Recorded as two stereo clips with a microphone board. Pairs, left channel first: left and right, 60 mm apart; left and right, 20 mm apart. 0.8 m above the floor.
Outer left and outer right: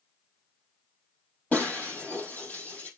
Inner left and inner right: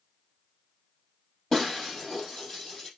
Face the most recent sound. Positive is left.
turn(degrees=20)  # may be behind; listen again after turning